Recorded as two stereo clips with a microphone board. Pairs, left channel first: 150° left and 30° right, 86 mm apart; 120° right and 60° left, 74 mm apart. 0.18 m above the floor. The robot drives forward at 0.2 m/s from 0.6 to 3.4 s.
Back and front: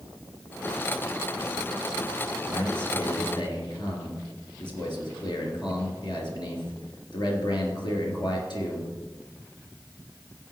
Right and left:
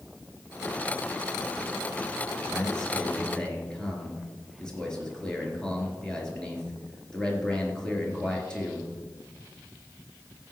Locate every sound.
2.5 s a man speaking: 160° left, 3.5 m; by 8.9 s 165° left, 3.5 m